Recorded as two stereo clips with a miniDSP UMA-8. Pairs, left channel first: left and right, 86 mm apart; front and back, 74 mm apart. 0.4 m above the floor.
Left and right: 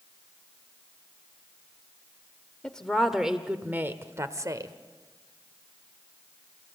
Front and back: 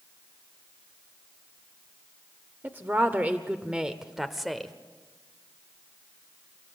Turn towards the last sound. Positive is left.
turn(degrees=-85)